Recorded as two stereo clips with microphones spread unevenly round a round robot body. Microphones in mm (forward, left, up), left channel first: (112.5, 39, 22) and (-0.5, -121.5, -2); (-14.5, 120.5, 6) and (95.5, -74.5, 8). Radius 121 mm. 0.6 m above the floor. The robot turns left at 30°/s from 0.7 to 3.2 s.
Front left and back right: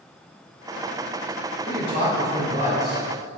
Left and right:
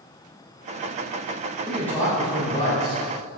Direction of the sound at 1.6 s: 150° right.